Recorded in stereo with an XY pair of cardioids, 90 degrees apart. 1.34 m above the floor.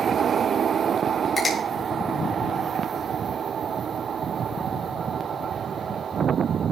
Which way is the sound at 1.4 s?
35° left.